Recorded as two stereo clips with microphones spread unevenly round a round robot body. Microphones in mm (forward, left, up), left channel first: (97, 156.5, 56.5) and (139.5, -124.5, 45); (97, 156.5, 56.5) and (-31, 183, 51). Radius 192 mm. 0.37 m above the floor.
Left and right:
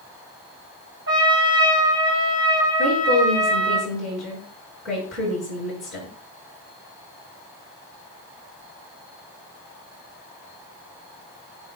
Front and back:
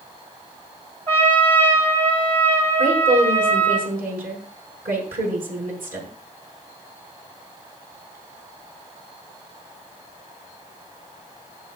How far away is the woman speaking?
About 6 m.